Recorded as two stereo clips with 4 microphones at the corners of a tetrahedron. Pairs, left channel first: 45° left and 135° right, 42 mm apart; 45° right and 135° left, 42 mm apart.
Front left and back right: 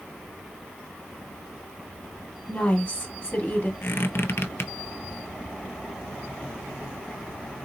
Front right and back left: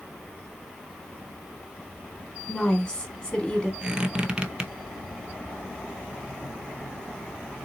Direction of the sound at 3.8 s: 70° left.